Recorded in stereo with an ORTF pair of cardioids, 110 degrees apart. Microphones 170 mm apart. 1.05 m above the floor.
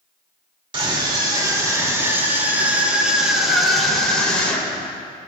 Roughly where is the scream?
Ahead right.